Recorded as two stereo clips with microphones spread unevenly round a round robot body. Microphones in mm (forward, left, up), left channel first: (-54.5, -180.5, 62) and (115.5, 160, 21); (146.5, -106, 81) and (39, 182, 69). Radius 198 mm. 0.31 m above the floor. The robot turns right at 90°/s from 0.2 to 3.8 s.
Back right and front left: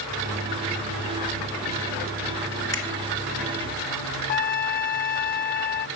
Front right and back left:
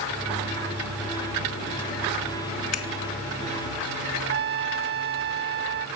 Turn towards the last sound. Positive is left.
turn(degrees=175)